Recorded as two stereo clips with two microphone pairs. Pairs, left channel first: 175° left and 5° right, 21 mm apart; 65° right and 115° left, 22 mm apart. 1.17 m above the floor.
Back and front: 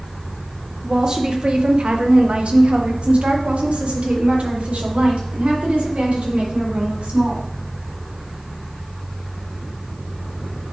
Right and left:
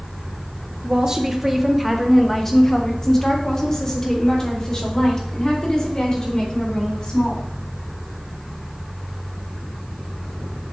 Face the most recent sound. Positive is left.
turn(degrees=-10)